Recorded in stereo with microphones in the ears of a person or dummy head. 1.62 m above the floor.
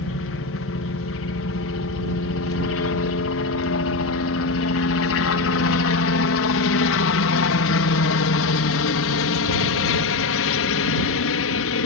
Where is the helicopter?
60° left (ahead or behind); by 11.9 s 65° left (ahead or behind).